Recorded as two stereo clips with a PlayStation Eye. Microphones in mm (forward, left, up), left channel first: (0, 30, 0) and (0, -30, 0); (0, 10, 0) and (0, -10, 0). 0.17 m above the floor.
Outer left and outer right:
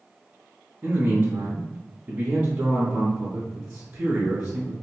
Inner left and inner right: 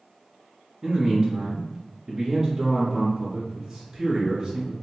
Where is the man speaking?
20° right (ahead or behind), 1.6 m.